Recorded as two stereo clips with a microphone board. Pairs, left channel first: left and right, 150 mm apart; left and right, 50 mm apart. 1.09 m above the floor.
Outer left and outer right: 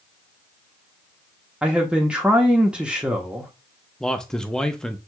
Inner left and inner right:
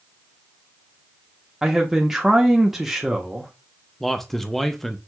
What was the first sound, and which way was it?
A man speaking, 5° right (ahead or behind).